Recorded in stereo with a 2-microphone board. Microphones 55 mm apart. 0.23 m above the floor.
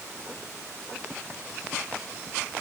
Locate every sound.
Only background noise.